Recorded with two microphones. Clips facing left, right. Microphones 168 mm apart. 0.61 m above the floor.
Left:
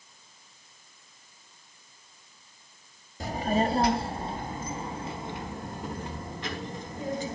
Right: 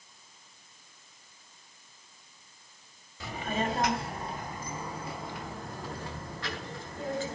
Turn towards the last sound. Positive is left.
turn(degrees=15)  # may be behind; listen again after turning